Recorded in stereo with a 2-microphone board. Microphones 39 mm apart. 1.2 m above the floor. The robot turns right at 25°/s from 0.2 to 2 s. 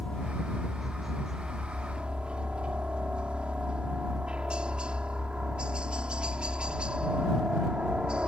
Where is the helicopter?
165° left; by 8.3 s 150° right.